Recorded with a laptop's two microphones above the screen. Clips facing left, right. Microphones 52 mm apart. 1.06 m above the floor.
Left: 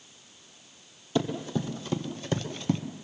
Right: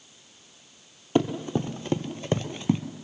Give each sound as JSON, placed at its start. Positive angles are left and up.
{"t": 1.1, "sound": "running footsteps", "side_deg": -45, "distance_m": 1.5}